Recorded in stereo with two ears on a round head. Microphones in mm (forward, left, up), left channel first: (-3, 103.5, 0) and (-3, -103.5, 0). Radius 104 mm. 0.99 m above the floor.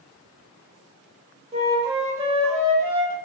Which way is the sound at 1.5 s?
25° right (ahead or behind).